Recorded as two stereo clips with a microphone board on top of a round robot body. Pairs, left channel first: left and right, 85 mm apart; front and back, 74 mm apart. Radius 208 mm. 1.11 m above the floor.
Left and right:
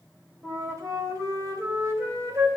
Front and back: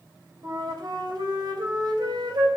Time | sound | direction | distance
0.4 | a flute | 145° right | 2.5 m